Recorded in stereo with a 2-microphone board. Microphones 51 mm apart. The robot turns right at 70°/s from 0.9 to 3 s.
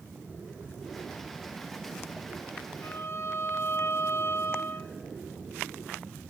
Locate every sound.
2.8 s a violin: 60° left (ahead or behind), 0.8 m; by 4.9 s 55° left (ahead or behind), 0.8 m